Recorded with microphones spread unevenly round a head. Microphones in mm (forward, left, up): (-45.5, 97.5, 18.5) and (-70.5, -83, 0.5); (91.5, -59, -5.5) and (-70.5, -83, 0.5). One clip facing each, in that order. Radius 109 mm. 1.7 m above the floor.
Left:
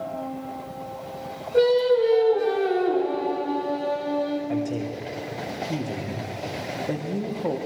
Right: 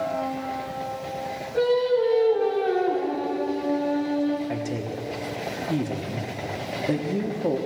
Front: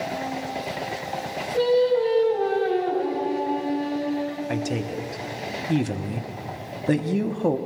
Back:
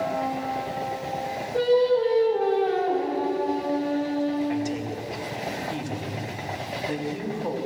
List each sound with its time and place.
1.5 s singing: 115° left, 3.5 m
4.5 s a man speaking: 20° right, 1.3 m